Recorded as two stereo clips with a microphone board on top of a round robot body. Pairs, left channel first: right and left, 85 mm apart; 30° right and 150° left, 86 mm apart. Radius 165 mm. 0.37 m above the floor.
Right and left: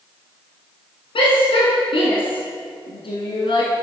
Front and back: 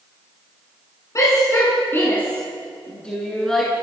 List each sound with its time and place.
1.1 s a shout: 85° right, 5 m; by 3.7 s 115° right, 6 m